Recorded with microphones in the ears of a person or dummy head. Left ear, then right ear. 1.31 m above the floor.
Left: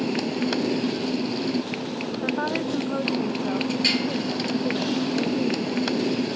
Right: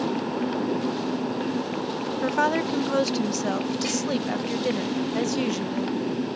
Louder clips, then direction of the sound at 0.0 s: Left 1 dB; 40° left (ahead or behind).